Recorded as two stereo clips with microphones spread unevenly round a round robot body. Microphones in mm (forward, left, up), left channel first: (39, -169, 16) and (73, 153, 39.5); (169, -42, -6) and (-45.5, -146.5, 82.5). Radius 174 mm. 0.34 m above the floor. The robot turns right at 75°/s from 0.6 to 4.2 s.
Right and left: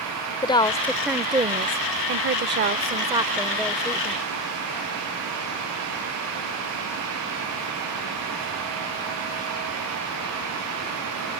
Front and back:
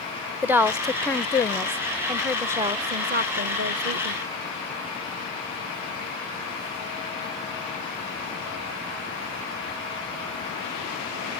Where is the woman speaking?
40° right; by 4.2 s 130° right.